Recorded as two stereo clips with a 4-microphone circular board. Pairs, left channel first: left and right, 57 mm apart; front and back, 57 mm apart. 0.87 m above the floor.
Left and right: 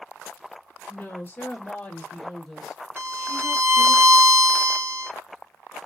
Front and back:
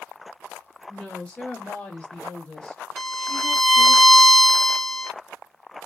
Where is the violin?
85° right, 1.0 m.